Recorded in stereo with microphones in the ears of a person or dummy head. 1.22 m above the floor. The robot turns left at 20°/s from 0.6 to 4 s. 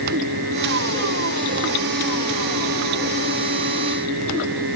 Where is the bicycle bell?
No bicycle bell in this recording.